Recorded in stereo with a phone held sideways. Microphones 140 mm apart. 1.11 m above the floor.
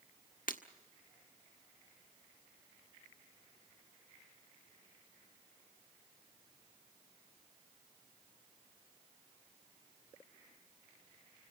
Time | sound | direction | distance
0.5 | breaking glass | 75° left (ahead or behind) | 1.3 m